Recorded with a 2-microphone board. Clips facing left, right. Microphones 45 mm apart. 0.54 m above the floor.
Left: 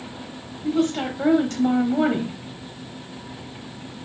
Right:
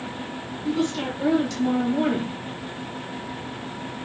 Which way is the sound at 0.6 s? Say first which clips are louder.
Left 3 dB; 40° left (ahead or behind).